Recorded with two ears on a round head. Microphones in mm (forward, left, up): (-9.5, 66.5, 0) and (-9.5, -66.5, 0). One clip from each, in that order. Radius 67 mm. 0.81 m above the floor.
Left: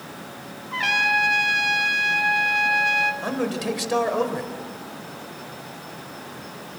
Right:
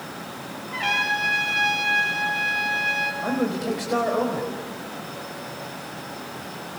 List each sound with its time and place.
0.7 s a trumpet: 35° left (ahead or behind), 2.5 m
3.2 s a man speaking: 65° left (ahead or behind), 4 m